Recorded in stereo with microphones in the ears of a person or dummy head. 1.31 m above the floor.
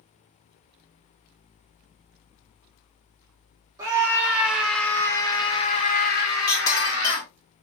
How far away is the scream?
About 1.3 m.